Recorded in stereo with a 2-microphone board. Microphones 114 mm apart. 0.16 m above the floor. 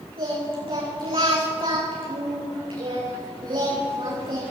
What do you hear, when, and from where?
0.2 s singing: 55° right (ahead or behind), 8.5 m